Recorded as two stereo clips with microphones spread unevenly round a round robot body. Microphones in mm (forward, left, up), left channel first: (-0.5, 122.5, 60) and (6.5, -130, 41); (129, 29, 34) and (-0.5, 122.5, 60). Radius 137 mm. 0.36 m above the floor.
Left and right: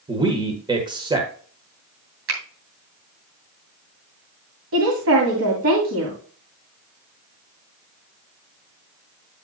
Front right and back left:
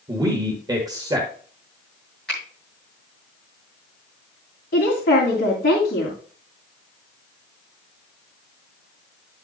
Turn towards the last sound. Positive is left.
turn(degrees=-65)